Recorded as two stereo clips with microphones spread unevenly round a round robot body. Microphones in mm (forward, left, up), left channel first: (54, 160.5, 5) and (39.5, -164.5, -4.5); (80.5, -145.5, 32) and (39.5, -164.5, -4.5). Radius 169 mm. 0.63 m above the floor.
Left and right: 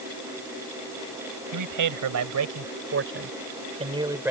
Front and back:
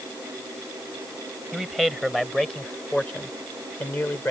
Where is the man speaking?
70° right; by 4.3 s 10° right.